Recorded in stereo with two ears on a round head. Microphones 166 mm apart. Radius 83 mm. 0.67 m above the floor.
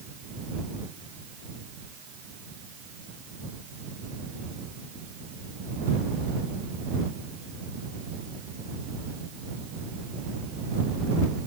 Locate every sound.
Only background noise.